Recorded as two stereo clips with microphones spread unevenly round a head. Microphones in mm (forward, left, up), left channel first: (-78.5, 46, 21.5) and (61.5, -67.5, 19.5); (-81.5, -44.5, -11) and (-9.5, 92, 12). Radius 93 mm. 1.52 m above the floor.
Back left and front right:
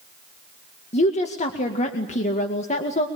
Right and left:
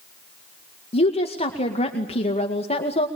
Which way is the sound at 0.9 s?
165° right.